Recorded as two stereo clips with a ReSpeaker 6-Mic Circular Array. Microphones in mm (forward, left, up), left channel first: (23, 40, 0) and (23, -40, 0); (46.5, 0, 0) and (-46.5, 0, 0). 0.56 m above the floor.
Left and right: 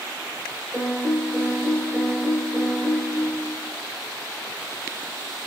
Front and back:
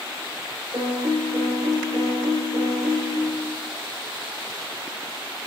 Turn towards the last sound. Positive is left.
turn(degrees=-145)